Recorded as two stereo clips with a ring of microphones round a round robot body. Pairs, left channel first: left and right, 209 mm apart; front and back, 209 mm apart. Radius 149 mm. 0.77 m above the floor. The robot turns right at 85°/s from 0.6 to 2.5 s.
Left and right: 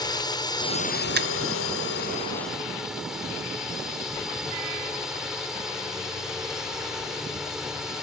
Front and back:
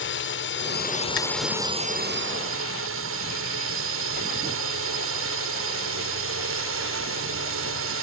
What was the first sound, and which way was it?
A drone, 20° left.